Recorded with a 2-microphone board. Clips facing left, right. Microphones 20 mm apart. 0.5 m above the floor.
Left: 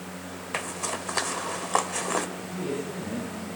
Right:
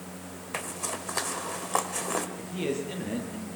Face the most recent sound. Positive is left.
turn(degrees=-75)  # may be behind; listen again after turning